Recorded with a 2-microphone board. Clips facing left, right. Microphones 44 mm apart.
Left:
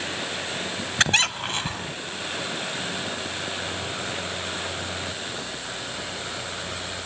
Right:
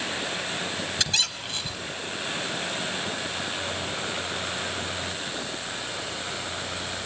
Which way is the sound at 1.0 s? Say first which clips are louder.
Left 10 dB; 50° left (ahead or behind).